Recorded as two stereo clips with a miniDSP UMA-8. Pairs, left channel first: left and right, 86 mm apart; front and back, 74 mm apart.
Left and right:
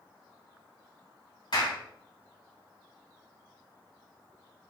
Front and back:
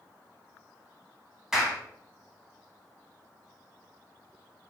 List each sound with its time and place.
1.5 s a clap: 100° left, 2.5 m